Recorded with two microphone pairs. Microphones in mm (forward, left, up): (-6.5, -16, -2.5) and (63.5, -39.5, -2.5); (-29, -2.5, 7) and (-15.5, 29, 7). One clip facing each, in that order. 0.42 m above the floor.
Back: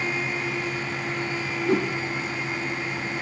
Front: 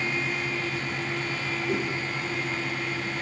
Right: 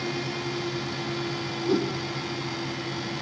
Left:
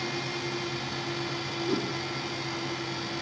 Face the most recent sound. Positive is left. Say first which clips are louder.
# back 6 dB, right 6 dB
turn(degrees=155)